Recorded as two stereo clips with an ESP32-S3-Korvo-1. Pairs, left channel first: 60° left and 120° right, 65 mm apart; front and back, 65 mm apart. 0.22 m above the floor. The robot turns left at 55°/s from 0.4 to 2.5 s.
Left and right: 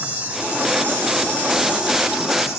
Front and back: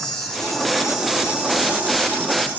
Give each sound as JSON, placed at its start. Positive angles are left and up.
{"t": 0.0, "sound": "an insect", "azimuth_deg": -80, "distance_m": 2.5}